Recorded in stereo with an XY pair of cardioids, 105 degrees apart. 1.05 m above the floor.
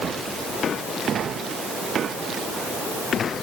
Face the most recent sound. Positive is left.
No sound to turn to.